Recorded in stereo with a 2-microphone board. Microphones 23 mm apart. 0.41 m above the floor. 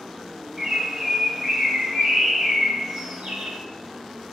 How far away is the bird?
About 1.0 m.